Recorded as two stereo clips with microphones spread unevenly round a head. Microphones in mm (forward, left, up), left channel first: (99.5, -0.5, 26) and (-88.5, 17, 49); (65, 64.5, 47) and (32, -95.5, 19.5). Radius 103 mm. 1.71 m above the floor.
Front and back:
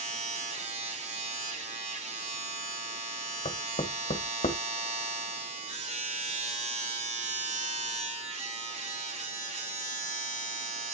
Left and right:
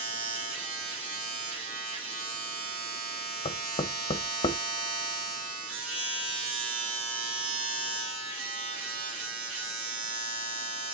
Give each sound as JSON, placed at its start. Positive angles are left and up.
{"t": 0.0, "sound": "a machine running", "azimuth_deg": -130, "distance_m": 3.0}
{"t": 3.5, "sound": "knocking", "azimuth_deg": 50, "distance_m": 1.0}